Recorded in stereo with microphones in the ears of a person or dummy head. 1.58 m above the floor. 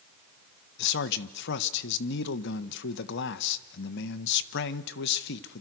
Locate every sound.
0.8 s a man speaking: 60° left (ahead or behind), 1.3 m